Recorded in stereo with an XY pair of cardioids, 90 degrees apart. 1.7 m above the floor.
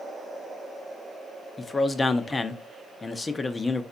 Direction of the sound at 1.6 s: 25° left.